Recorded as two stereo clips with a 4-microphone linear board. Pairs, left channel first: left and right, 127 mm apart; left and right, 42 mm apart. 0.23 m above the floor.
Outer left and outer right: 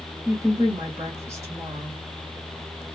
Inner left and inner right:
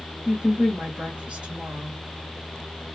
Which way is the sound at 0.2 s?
25° right (ahead or behind).